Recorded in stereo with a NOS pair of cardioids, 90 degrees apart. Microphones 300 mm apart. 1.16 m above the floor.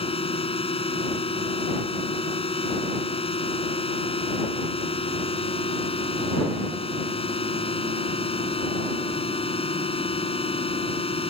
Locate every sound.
0.0 s a drone: 20° left